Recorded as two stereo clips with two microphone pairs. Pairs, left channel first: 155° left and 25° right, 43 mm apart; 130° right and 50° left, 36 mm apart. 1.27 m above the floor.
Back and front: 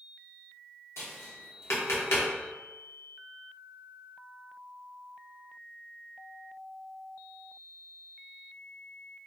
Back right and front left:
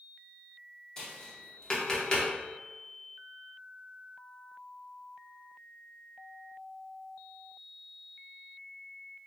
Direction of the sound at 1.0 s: 160° left.